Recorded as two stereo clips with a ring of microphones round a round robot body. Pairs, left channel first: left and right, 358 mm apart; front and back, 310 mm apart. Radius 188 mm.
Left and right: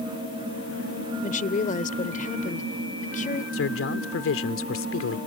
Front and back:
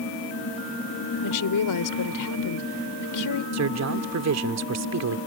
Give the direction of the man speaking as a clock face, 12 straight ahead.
7 o'clock.